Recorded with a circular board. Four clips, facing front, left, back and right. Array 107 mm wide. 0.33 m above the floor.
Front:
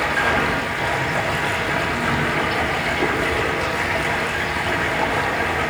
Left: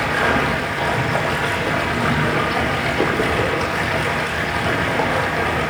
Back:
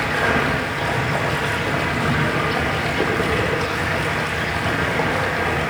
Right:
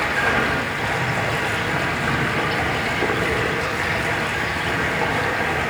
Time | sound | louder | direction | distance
0.0 | running water | left 2 dB, even | 115° left | 8.5 m